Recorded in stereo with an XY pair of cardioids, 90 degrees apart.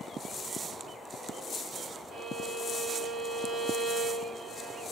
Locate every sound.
2.1 s a violin: 65° right, 4.5 m